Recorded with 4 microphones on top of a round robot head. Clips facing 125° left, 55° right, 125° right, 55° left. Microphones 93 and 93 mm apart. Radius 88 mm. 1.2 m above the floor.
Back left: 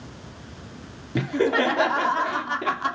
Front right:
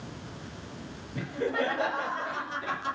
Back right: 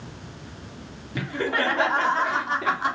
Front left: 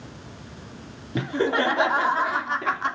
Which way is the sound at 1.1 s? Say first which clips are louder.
Back left 8 dB, front left 3 dB; 115° left.